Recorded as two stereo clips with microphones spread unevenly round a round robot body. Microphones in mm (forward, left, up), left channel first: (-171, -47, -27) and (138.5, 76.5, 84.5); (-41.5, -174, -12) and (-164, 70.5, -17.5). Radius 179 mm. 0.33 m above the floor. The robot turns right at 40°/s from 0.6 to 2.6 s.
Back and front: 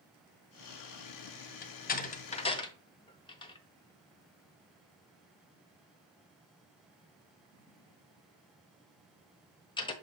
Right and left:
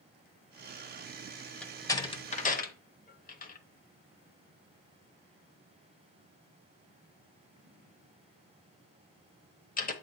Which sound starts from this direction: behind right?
A door slam, at 1.6 s.